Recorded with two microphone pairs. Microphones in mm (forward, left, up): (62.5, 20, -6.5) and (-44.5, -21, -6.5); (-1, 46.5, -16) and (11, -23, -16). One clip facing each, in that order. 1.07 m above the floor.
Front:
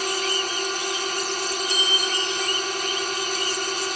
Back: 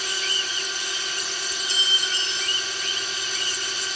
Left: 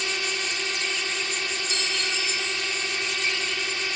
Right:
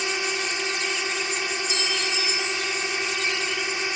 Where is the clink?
140° left.